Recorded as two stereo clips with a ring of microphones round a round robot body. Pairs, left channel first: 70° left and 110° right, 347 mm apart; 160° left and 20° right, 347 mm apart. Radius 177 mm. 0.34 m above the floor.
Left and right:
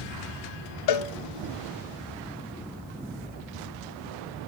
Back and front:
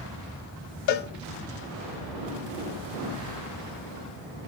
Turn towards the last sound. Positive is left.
turn(degrees=110)